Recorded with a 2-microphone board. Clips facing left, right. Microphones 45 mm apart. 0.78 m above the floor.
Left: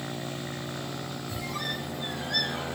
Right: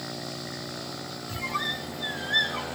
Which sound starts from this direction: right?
A squeak, at 1.3 s.